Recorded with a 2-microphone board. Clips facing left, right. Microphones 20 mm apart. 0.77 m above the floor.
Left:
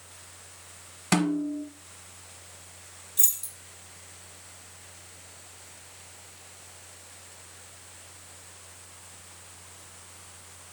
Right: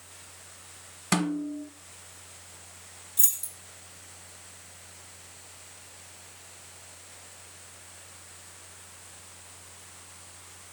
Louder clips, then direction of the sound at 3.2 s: Left 1 dB; centre (ahead or behind).